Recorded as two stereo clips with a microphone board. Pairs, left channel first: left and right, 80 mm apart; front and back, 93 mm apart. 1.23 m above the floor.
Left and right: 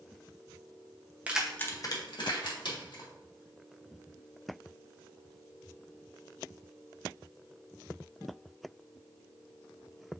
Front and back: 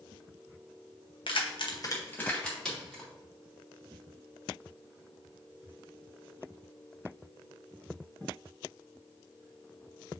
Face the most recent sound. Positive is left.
turn(degrees=90)